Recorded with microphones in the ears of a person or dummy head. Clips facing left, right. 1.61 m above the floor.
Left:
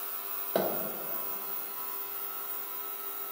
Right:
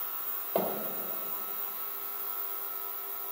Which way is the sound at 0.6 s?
20° left (ahead or behind).